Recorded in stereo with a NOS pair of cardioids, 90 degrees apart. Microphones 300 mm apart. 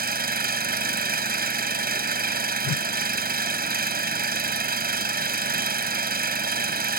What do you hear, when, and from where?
0.0 s an engine running: 30° right
2.6 s a whoosh: 65° left